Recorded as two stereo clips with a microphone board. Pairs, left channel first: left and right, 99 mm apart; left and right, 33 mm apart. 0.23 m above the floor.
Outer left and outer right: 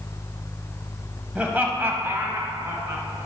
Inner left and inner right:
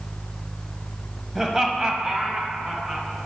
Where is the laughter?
10° right (ahead or behind), 0.9 m; by 3.0 s 25° right (ahead or behind), 1.9 m.